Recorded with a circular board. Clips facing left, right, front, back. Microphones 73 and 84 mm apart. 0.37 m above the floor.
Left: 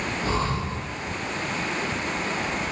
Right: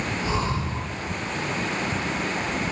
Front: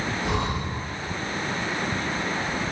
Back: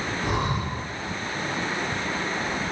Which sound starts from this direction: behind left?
Breathing, at 0.2 s.